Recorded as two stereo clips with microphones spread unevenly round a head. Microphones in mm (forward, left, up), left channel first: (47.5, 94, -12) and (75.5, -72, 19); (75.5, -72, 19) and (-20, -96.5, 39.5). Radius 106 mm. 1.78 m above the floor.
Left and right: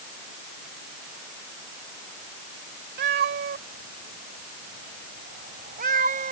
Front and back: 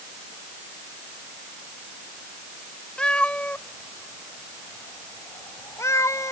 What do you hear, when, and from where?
3.0 s a cat meowing: 70° right; by 6.3 s 45° right